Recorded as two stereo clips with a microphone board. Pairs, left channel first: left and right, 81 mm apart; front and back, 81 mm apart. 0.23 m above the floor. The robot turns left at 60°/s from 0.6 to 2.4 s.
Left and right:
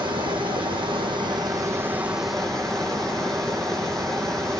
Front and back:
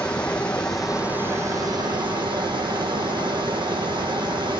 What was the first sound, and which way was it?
Running water, 80° right.